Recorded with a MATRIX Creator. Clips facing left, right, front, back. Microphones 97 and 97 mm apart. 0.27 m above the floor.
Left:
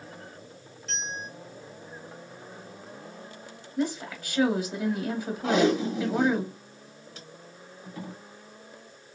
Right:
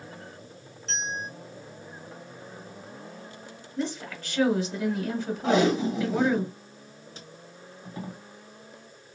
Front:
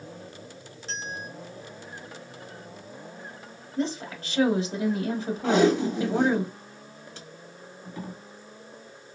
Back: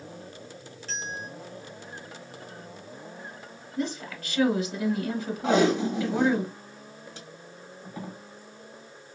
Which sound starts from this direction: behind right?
Tape being pulled, at 5.4 s.